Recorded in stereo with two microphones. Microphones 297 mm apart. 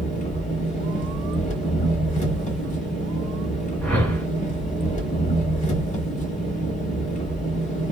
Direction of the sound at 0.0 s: 25° left (ahead or behind).